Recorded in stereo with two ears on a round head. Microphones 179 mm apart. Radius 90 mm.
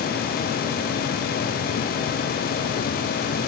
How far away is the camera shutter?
No camera shutter in this recording.